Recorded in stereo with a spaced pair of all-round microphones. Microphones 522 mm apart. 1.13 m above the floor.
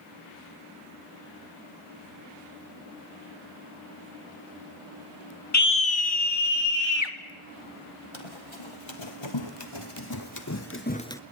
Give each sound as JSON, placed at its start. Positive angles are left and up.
{"t": 5.5, "sound": "a scream", "side_deg": 30, "distance_m": 0.8}
{"t": 8.1, "sound": "running footsteps", "side_deg": 65, "distance_m": 3.0}